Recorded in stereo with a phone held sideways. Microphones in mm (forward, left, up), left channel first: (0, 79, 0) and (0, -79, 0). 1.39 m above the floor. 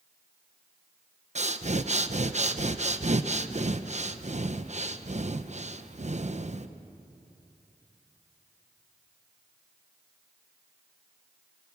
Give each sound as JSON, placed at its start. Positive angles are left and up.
{"t": 1.4, "sound": "breathing", "side_deg": -45, "distance_m": 0.8}